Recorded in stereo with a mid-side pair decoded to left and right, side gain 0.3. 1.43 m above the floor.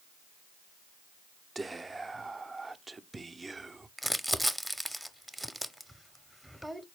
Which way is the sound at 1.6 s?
35° right.